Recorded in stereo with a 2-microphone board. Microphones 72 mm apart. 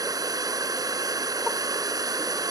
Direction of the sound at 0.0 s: 60° right (ahead or behind).